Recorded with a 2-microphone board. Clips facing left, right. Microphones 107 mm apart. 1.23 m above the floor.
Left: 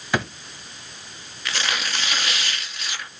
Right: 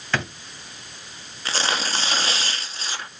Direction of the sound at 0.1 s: 10° left (ahead or behind).